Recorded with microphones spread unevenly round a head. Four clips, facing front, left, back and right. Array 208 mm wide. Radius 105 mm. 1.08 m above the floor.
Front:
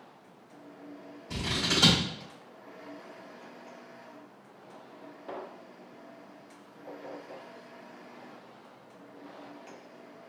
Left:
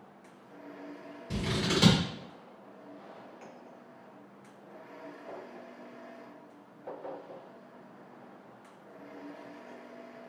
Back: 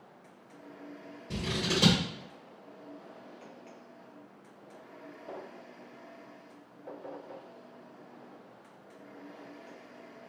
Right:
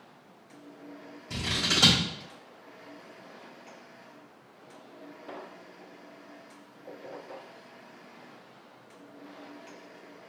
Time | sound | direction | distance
1.3 | scissors | 150° left | 2.5 m